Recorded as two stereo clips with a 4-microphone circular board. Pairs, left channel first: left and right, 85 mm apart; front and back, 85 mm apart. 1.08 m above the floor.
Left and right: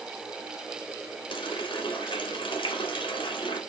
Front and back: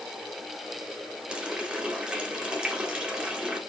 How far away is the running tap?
About 1.9 m.